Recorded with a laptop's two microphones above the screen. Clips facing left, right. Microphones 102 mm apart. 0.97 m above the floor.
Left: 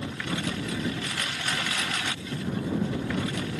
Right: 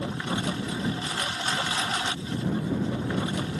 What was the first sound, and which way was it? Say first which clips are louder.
A lawn mower: right 2 dB; 30° right (ahead or behind).